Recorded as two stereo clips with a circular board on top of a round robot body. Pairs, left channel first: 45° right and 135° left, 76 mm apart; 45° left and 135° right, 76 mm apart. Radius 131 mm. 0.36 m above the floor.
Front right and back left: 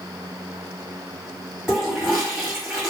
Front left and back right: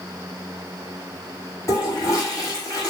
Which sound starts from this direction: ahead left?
A toilet flushing, at 1.7 s.